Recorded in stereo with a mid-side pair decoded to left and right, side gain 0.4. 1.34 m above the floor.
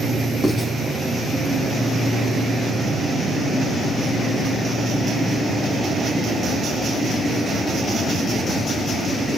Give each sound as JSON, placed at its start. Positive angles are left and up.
{"t": 0.4, "sound": "writing", "azimuth_deg": 30, "distance_m": 3.5}